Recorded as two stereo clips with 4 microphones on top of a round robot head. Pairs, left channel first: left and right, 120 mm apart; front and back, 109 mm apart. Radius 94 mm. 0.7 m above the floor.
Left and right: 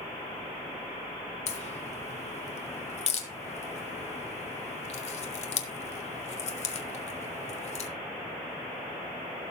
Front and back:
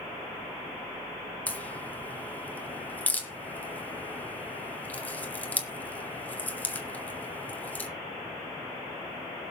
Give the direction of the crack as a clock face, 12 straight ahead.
10 o'clock.